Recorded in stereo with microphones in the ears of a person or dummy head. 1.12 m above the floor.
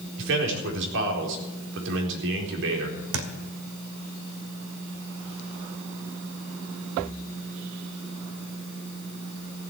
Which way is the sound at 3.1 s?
70° right (ahead or behind).